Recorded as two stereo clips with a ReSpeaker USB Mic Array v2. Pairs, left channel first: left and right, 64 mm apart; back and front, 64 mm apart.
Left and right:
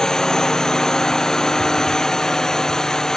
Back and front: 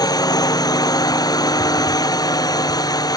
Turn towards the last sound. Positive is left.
turn(degrees=170)